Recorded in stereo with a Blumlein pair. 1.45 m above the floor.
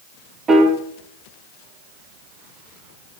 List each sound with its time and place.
0.5 s a piano: 20° right, 2 m